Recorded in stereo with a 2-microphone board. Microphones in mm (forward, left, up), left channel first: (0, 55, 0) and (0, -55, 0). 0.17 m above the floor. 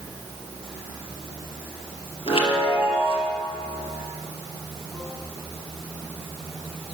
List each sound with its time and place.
2.3 s a chime: 55° left (ahead or behind), 2.5 m